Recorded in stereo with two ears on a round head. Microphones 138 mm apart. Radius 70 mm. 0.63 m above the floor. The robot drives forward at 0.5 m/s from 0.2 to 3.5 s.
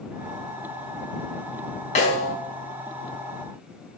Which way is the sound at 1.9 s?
50° left (ahead or behind).